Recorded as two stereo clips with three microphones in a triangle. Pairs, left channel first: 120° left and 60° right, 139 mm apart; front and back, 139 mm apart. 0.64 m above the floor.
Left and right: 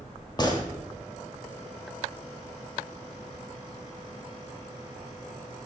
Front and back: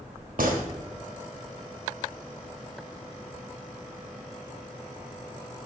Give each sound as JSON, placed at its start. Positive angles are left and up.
{"t": 0.4, "sound": "a gunshot", "azimuth_deg": 175, "distance_m": 1.1}